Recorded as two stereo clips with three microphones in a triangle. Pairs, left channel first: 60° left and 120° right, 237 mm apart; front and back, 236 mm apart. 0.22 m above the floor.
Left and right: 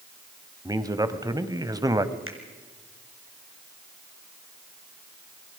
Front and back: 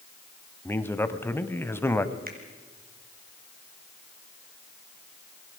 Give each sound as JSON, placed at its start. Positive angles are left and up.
{"t": 0.7, "sound": "a man speaking", "azimuth_deg": -65, "distance_m": 1.2}
{"t": 2.3, "sound": "a finger snap", "azimuth_deg": -135, "distance_m": 3.0}